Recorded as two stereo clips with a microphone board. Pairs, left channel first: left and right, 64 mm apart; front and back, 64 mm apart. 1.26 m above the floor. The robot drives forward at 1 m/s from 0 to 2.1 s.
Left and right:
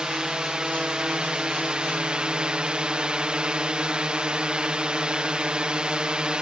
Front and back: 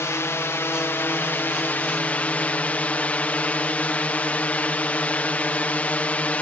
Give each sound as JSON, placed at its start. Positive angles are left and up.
{"t": 0.0, "sound": "a drone", "azimuth_deg": -15}